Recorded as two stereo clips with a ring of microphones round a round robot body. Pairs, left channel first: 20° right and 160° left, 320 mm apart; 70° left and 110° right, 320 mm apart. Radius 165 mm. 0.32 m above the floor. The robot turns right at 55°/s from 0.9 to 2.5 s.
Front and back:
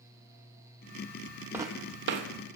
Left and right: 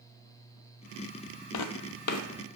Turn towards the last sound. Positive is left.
turn(degrees=130)